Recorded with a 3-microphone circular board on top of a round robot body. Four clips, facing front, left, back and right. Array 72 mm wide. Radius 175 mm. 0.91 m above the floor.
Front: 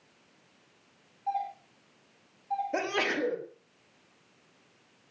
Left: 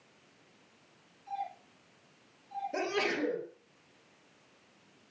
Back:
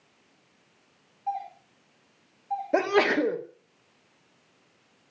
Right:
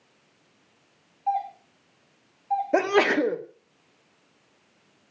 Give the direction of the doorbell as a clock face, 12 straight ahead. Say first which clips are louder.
Right 12 dB, even; 3 o'clock.